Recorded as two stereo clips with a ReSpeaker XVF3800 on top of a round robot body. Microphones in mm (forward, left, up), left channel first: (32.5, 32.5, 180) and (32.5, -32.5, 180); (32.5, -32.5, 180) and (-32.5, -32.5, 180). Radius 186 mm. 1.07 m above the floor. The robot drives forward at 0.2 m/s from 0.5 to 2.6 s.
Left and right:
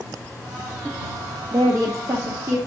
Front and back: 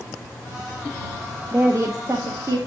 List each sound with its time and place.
1.5 s a woman speaking: 130° right, 1.0 m; by 2.6 s 140° right, 1.1 m